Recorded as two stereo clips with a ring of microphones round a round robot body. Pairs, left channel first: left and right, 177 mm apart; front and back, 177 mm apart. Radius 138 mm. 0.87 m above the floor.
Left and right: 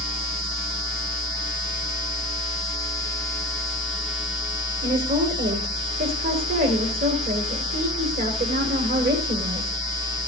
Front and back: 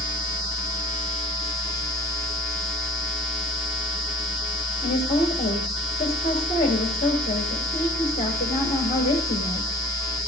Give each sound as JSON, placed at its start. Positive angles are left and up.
{"t": 4.8, "sound": "a woman speaking", "azimuth_deg": -60, "distance_m": 2.5}